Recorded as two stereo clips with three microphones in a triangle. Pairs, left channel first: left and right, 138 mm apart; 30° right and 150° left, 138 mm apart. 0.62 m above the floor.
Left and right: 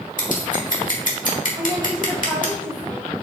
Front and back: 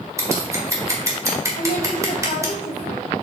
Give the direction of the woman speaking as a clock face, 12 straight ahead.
1 o'clock.